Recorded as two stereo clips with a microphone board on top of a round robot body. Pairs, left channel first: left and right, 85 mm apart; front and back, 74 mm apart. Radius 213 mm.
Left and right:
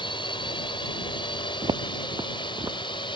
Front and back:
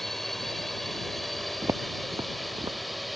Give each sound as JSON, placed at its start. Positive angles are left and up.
{"t": 0.0, "sound": "a drone", "azimuth_deg": 85}
{"t": 1.6, "sound": "footsteps", "azimuth_deg": -125}